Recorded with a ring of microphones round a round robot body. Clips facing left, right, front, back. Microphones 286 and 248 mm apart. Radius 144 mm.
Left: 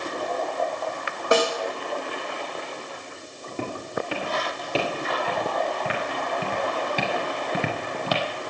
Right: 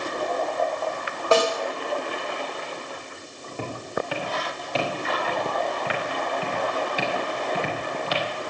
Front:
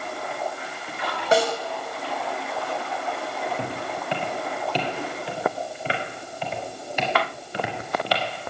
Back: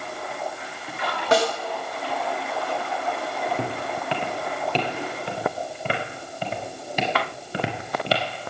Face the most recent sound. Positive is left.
turn(degrees=115)